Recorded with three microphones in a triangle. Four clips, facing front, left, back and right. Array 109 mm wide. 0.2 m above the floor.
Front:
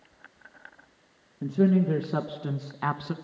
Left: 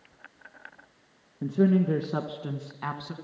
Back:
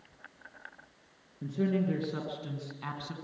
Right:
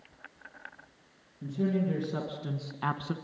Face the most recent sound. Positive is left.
turn(degrees=-30)